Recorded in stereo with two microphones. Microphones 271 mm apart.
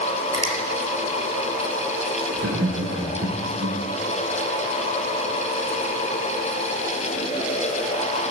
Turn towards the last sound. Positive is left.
turn(degrees=-75)  # may be behind; listen again after turning